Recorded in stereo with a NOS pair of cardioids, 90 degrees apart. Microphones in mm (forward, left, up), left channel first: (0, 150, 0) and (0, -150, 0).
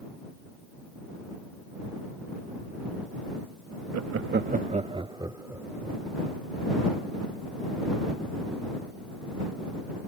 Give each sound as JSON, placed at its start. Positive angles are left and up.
{"t": 3.9, "sound": "laughter", "azimuth_deg": -60}